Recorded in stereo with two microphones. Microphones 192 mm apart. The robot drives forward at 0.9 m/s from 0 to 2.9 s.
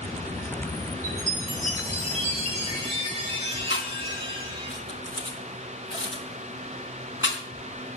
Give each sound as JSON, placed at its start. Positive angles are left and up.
{"t": 1.0, "sound": "a chime", "side_deg": -40, "distance_m": 4.0}
{"t": 3.7, "sound": "chewing", "side_deg": 80, "distance_m": 4.5}